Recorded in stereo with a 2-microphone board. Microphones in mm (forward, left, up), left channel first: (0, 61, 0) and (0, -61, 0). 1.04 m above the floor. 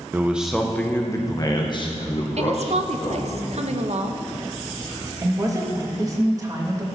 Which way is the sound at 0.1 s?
20° right (ahead or behind).